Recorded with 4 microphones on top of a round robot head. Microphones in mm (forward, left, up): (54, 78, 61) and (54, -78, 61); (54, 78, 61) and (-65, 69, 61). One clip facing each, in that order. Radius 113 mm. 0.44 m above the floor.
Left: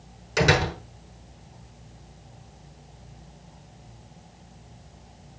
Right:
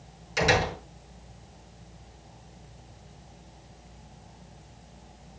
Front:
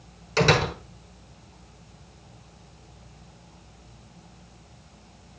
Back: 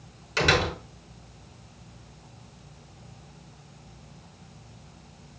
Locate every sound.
0.4 s a door slam: 60° left, 5 m